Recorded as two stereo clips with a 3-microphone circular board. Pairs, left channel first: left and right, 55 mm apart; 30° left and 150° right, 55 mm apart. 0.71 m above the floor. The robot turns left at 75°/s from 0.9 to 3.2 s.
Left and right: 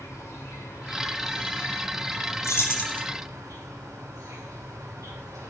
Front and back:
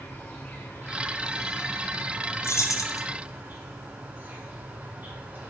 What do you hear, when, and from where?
0.0 s an insect: 75° left, 2.5 m; by 5.5 s 95° right, 2.5 m
2.4 s keys jangling: 65° left, 0.8 m; by 3.0 s 20° left, 0.8 m